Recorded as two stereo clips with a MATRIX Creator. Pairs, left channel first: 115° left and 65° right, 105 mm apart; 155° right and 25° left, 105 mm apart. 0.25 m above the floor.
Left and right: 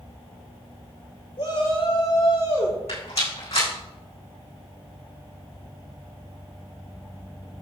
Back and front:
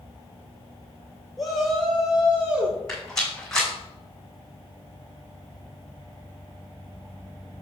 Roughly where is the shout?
Left.